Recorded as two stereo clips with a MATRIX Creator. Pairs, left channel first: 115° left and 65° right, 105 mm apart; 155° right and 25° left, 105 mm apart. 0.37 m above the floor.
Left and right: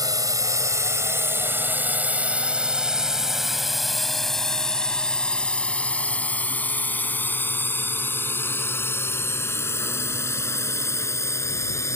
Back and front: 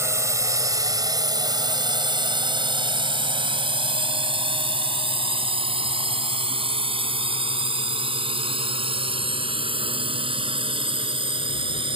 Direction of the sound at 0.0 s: 30° right.